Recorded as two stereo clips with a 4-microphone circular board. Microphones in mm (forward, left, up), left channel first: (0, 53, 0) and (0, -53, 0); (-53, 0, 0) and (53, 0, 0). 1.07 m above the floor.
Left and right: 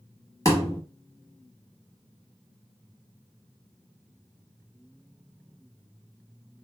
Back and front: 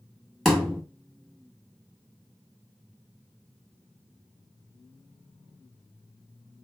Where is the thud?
95° left, 1.0 m.